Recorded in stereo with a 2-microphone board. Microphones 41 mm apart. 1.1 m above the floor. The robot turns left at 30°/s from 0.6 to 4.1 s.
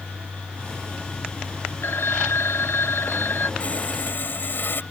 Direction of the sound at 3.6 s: 40° left (ahead or behind).